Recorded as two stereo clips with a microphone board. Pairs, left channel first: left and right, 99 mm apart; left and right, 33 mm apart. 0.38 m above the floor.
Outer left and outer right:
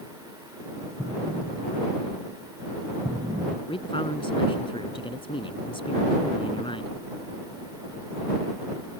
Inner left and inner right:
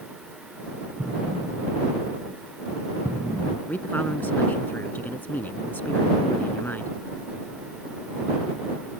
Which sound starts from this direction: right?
An explosion, at 1.0 s.